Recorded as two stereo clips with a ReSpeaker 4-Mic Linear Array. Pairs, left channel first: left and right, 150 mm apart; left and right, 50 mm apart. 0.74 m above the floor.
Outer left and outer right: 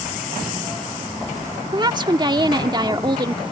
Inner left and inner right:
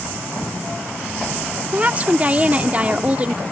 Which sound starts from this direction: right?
A woman speaking, at 1.7 s.